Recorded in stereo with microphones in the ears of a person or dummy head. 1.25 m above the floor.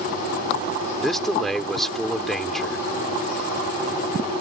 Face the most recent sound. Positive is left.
turn(degrees=-5)  # may be behind; listen again after turning